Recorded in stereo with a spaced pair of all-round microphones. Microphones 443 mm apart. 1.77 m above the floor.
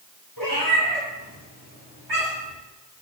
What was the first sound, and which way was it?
A cat meowing, 45° right (ahead or behind).